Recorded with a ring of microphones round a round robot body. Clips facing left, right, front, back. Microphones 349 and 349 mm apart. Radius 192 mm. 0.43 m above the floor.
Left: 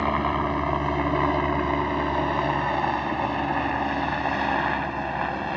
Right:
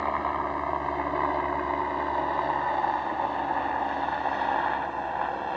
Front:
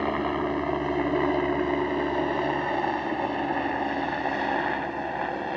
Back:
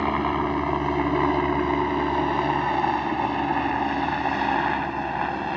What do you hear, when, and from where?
0.0 s a helicopter: 115° left; by 5.6 s 120° left